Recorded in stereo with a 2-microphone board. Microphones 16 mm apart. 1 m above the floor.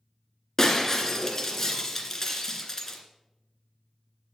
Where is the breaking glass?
25° left (ahead or behind), 1.8 m.